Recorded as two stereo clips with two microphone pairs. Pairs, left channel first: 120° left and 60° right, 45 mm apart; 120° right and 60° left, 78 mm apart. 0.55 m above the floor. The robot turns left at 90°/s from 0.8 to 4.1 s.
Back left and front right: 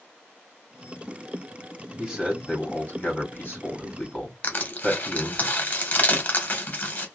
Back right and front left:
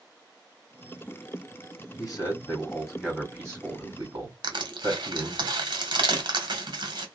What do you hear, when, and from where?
2.0 s a man speaking: 125° right, 1.7 m; by 5.4 s 45° left, 1.7 m
4.4 s crushing: 70° left, 0.8 m